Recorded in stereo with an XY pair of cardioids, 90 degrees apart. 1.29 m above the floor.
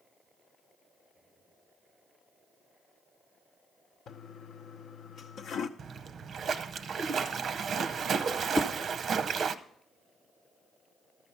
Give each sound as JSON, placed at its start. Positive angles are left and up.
{"t": 4.1, "sound": "a toilet flushing", "azimuth_deg": 70, "distance_m": 0.7}
{"t": 5.8, "sound": "a splash", "azimuth_deg": -60, "distance_m": 0.6}
{"t": 8.6, "sound": "a whoosh", "azimuth_deg": 30, "distance_m": 1.0}